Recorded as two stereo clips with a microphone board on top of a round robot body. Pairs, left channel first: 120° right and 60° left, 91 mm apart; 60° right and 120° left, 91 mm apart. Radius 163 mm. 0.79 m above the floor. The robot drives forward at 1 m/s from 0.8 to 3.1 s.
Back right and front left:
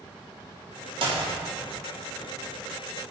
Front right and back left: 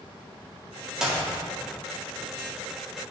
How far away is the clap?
About 1.8 m.